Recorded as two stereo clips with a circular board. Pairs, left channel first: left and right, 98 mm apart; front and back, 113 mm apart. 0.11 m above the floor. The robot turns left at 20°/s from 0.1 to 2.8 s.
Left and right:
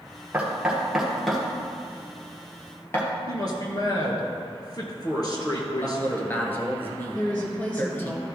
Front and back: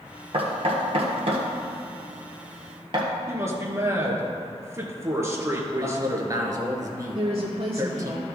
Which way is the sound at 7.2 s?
165° left.